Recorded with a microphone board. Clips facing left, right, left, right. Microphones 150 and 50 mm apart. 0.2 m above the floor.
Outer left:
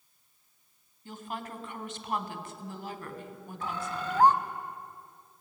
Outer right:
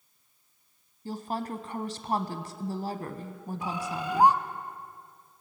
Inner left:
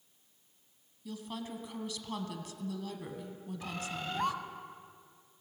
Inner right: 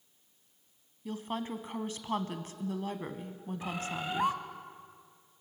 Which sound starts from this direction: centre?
A bird, at 3.6 s.